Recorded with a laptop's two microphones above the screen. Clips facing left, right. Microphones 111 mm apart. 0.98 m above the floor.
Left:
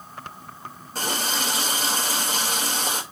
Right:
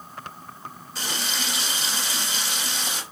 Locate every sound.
0.9 s a running tap: 50° left (ahead or behind), 2.5 m